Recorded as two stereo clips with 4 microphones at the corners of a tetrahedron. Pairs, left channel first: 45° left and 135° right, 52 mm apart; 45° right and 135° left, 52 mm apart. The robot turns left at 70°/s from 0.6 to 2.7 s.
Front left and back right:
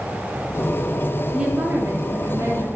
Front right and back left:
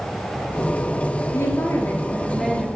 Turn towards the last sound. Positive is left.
turn(degrees=-155)